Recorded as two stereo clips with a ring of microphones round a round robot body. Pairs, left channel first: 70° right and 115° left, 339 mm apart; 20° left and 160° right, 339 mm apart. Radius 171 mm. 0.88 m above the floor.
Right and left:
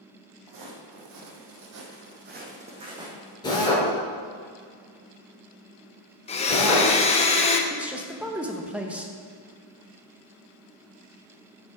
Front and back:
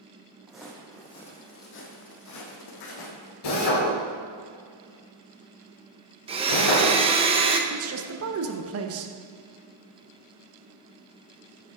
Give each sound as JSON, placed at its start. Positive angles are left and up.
{"t": 0.5, "sound": "footsteps", "azimuth_deg": 115, "distance_m": 1.8}
{"t": 3.4, "sound": "a drill", "azimuth_deg": 10, "distance_m": 3.0}
{"t": 6.3, "sound": "a blender", "azimuth_deg": -110, "distance_m": 0.9}
{"t": 7.7, "sound": "a man speaking", "azimuth_deg": -165, "distance_m": 0.9}